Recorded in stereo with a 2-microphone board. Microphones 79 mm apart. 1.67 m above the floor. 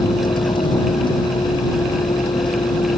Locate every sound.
0.0 s a vehicle: 85° left